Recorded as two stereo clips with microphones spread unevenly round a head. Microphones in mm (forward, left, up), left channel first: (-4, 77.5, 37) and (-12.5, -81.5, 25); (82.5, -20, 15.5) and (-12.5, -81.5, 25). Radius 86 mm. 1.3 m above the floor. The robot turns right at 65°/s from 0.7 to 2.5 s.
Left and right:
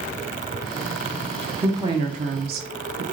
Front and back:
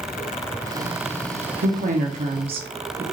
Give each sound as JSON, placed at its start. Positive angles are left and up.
{"t": 1.6, "sound": "a woman speaking", "azimuth_deg": -170, "distance_m": 0.8}